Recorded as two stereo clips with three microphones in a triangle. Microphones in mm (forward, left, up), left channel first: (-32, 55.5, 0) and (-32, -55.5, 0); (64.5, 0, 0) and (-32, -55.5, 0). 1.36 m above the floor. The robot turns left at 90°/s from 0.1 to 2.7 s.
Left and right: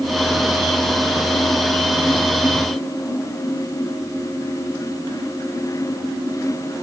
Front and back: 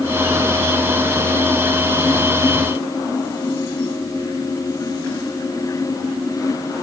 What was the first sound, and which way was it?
Only background noise.